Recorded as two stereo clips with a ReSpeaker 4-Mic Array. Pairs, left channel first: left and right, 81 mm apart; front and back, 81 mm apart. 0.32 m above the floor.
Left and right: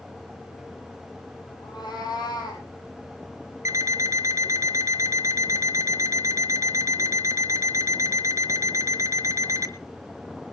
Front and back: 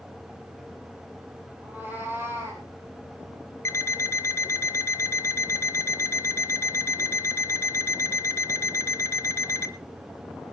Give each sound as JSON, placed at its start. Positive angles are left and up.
{"t": 1.6, "sound": "a cat meowing", "azimuth_deg": 115, "distance_m": 6.0}
{"t": 3.6, "sound": "an alarm clock", "azimuth_deg": -50, "distance_m": 1.8}